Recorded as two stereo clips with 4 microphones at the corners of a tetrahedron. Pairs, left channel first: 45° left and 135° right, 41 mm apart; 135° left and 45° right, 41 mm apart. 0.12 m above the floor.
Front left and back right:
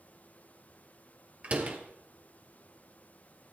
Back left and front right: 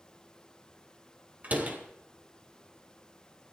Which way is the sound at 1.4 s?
85° right.